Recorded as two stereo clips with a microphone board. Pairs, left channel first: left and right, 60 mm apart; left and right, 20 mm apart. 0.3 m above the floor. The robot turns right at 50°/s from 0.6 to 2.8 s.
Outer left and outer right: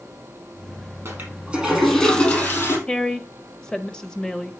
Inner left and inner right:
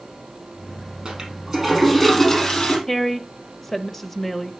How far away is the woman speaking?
About 1.0 m.